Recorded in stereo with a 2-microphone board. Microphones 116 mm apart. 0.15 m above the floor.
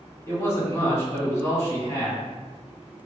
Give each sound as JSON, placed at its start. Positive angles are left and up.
{"t": 0.3, "sound": "a man speaking", "side_deg": 25, "distance_m": 1.5}